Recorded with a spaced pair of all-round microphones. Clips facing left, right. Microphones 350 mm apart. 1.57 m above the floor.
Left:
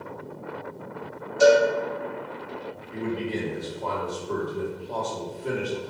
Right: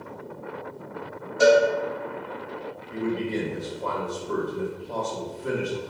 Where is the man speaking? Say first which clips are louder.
Right 2 dB; 15° right (ahead or behind), 1.4 m.